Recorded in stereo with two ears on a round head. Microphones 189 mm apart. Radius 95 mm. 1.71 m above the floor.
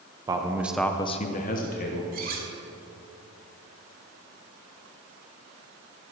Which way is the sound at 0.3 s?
20° right (ahead or behind).